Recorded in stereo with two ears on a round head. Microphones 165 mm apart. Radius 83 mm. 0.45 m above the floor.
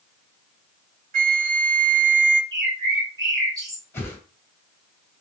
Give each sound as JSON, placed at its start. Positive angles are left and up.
{"t": 1.1, "sound": "a flute", "side_deg": -45, "distance_m": 0.9}
{"t": 2.5, "sound": "a bird", "side_deg": -20, "distance_m": 3.0}
{"t": 3.9, "sound": "a whoosh", "side_deg": 10, "distance_m": 3.0}